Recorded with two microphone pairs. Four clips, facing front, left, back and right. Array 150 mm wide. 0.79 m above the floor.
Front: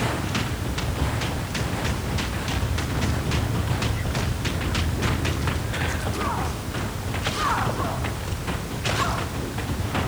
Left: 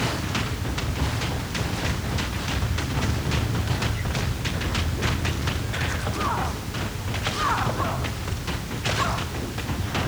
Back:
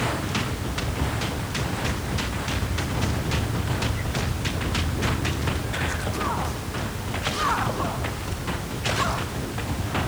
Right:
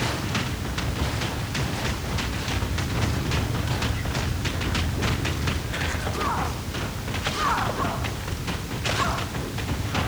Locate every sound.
Only background noise.